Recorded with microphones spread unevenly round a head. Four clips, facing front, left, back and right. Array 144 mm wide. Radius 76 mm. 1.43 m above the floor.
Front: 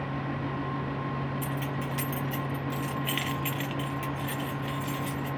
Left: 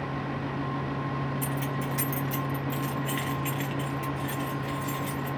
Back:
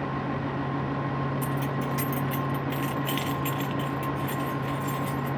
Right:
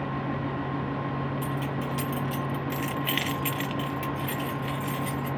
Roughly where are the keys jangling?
Behind left.